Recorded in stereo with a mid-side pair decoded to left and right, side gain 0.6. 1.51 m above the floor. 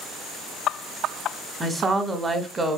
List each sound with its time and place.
1.6 s a woman speaking: 20° right, 0.7 m